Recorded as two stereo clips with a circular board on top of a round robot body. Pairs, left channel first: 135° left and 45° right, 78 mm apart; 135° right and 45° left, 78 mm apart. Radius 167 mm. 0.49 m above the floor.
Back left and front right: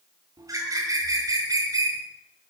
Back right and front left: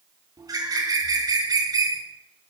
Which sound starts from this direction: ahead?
A bird, at 0.4 s.